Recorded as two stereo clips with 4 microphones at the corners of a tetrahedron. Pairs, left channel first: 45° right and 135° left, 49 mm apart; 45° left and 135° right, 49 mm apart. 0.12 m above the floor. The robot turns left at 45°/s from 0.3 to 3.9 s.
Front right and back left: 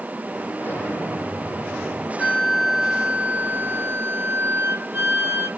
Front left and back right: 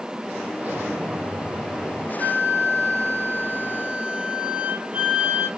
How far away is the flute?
About 1.2 m.